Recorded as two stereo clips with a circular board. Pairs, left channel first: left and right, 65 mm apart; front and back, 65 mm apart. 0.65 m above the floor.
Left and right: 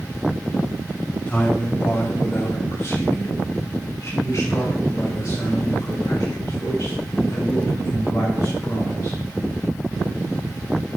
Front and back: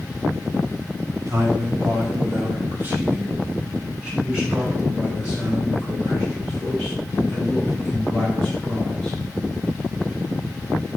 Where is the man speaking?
150° left, 3 m; by 9.2 s 90° left, 8.5 m.